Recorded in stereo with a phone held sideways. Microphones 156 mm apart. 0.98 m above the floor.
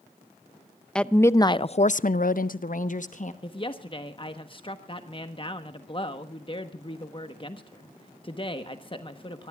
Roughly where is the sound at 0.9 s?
Centre.